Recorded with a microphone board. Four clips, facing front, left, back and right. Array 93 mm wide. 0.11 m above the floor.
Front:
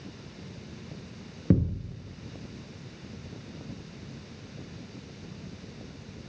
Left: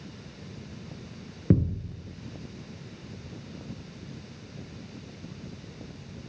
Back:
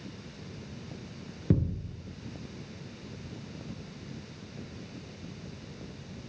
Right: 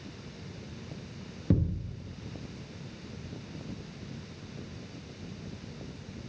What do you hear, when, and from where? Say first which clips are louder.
1.5 s a thud: left 4 dB, front 3 dB; 60° left, 0.8 m